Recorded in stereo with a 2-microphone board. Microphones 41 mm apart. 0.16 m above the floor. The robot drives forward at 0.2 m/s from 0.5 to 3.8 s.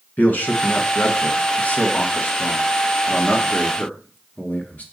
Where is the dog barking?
I don't hear a dog barking.